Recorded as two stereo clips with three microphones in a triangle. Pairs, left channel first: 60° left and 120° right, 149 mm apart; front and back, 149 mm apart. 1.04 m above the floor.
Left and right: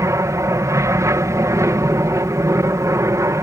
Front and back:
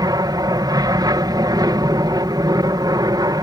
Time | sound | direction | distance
0.0 | an aircraft | 160° right | ?